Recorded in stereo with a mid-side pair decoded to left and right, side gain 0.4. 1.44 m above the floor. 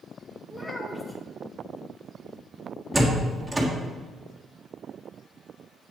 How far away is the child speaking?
About 1.5 m.